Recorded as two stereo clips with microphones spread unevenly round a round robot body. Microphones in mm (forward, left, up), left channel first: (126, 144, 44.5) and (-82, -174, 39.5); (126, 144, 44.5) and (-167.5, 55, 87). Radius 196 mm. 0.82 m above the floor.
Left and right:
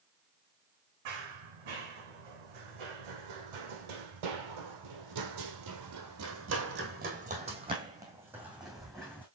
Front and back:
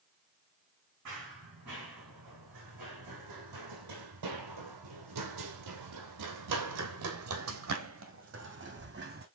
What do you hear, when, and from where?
1.1 s running footsteps: 110° right, 3 m; by 9.2 s 145° left, 2.5 m